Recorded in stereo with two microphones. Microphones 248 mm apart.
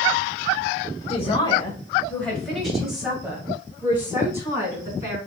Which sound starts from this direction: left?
A man speaking, at 1.1 s.